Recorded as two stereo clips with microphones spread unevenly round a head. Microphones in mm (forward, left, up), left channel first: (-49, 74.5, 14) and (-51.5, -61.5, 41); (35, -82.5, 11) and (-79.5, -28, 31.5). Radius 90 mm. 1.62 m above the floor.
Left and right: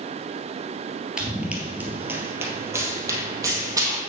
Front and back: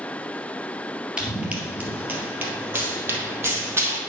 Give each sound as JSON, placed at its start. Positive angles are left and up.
{"t": 1.2, "sound": "running footsteps", "azimuth_deg": -150, "distance_m": 1.8}